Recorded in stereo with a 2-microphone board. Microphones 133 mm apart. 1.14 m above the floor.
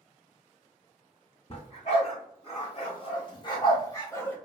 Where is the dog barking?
50° left (ahead or behind), 1.6 m; by 4.3 s 10° left (ahead or behind), 1.0 m.